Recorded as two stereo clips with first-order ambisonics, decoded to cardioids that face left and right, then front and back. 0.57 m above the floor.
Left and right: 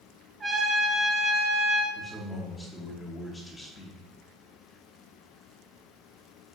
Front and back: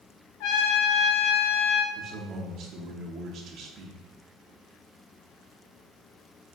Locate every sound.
0.4 s a trumpet: 15° right, 0.6 m
1.9 s a man speaking: 165° left, 0.7 m